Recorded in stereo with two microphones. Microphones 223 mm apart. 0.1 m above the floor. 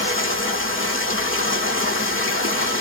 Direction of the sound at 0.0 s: 65° left (ahead or behind).